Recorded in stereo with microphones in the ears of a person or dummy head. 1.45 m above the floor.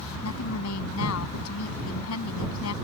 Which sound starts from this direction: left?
A woman speaking, at 0.2 s.